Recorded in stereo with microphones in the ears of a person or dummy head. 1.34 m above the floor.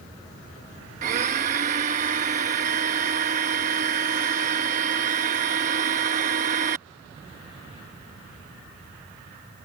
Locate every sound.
1.0 s a blender: 35° right (ahead or behind)